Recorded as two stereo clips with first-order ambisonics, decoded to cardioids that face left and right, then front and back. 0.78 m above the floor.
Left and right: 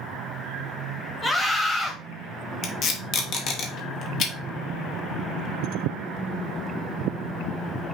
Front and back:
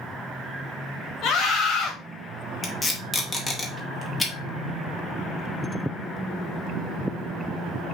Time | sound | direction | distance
1.2 | a scream | 20° left | 1.2 m
2.6 | tape being pulled | 75° left | 0.8 m